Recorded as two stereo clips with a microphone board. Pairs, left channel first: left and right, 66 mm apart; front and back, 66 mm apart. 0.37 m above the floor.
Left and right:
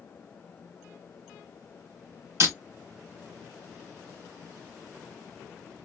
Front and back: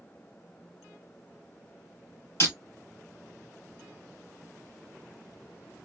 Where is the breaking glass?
50° right, 2.5 m.